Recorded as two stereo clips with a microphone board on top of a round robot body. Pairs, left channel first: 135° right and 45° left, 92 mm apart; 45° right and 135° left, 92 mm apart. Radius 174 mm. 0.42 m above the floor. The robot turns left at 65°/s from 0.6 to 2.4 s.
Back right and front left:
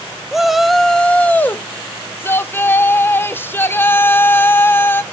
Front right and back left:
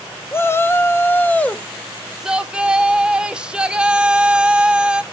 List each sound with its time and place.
0.3 s a shout: 40° right, 0.8 m; by 5.0 s 160° right, 0.8 m